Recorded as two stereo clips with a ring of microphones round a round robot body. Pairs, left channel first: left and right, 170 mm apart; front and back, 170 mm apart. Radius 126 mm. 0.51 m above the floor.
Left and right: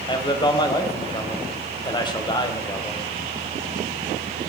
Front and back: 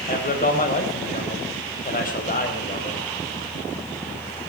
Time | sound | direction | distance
0.1 | a man speaking | 30° left | 3.5 m